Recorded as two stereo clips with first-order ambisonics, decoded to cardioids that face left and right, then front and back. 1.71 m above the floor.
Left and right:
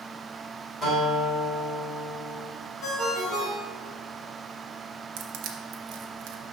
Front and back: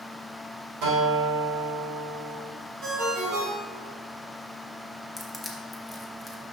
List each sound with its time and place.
0.8 s a guitar: 155° left, 3 m
2.8 s a ringtone: 140° left, 2 m
5.2 s crushing: 85° right, 0.9 m